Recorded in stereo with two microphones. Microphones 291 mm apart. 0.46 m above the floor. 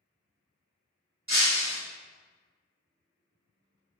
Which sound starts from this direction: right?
Breaking glass, at 1.3 s.